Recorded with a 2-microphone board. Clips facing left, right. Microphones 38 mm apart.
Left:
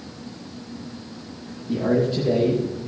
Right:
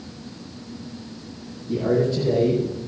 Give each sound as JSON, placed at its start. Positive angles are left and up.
{"t": 1.7, "sound": "a man speaking", "side_deg": 15, "distance_m": 6.0}